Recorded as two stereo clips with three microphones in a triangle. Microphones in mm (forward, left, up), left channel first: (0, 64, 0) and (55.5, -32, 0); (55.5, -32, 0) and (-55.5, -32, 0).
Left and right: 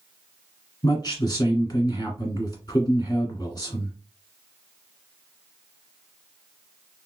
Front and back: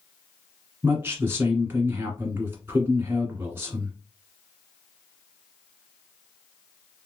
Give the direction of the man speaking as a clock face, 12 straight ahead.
8 o'clock.